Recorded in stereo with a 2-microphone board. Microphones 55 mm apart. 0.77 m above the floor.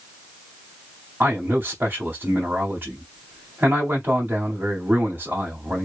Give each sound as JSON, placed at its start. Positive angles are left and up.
{"t": 1.2, "sound": "a man speaking", "side_deg": -35, "distance_m": 1.7}